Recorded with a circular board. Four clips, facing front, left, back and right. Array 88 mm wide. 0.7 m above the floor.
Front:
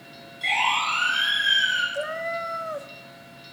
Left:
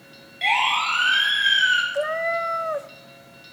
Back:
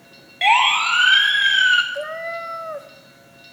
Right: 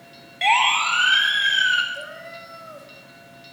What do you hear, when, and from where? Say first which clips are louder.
0.4 s a siren: right 3 dB, back 8 dB; 160° right, 6 m; by 1.8 s straight behind, 4.5 m
1.9 s a cat meowing: left 13 dB, back 1 dB; 100° left, 0.9 m